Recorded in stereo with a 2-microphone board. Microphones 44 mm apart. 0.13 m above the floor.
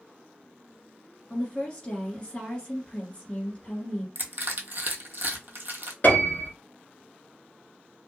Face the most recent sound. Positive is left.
turn(degrees=40)  # may be behind; listen again after turning